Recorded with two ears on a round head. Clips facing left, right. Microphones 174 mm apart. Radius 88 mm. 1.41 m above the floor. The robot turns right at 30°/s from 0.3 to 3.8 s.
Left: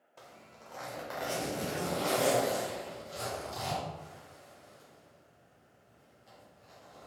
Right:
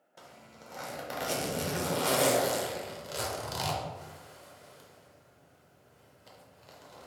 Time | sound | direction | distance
0.2 | a zipper | 10° right (ahead or behind) | 0.8 m